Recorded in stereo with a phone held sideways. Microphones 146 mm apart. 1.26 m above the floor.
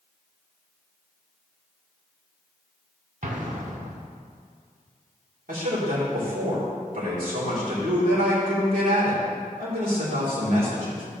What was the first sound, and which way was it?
An explosion, 60° right (ahead or behind).